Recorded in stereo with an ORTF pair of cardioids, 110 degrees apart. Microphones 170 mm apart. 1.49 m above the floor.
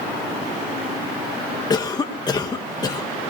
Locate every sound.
1.7 s a cough: 25° left, 1.5 m